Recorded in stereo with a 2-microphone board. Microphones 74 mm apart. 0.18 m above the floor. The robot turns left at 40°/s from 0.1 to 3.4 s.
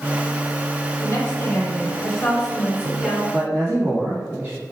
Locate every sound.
1.0 s a woman speaking: 60° left, 1.5 m; by 3.2 s 30° right, 1.5 m
3.3 s a man speaking: 30° right (ahead or behind), 1.5 m; by 4.6 s 25° right (ahead or behind), 1.5 m